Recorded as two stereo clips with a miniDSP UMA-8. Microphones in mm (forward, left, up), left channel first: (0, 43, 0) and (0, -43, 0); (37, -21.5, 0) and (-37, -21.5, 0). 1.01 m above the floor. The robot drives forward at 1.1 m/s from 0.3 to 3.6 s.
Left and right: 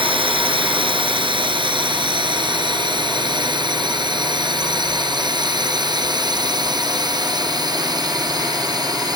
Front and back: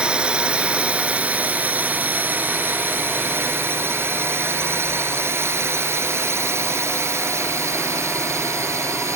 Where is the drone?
105° right; by 9.2 s 130° right.